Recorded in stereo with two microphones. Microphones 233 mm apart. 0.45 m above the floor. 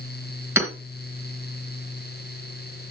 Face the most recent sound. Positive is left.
turn(degrees=-10)  # may be behind; listen again after turning